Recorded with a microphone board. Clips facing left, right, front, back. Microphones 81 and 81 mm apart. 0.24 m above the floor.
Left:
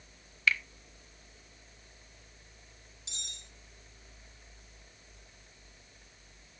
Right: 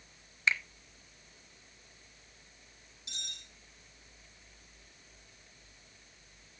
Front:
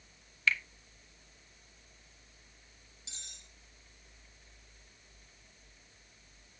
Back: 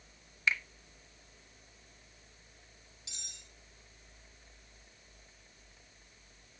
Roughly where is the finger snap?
Behind right.